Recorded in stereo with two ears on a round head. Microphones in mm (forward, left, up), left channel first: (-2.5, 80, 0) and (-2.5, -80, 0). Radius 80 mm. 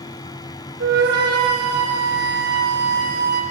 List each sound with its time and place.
0.8 s a flute: 65° right (ahead or behind), 4 m